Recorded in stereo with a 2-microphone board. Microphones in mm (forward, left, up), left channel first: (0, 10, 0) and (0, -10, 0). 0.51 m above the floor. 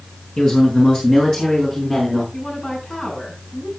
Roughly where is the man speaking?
Left.